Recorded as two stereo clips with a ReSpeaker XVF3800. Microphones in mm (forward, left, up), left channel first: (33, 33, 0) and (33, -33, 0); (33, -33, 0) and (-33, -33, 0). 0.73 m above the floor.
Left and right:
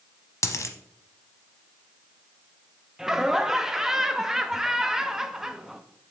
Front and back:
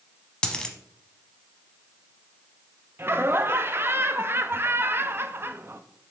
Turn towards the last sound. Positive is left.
turn(degrees=-170)